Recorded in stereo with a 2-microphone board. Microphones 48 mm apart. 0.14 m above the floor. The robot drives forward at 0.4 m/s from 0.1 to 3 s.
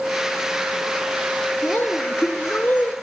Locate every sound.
1.6 s a woman speaking: 45° left (ahead or behind), 2.5 m; by 2.9 s 40° left (ahead or behind), 2.5 m